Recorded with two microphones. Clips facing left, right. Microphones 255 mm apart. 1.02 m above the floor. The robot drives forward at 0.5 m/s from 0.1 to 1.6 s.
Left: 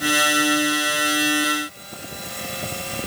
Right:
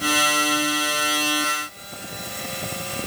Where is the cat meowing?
I don't hear a cat meowing.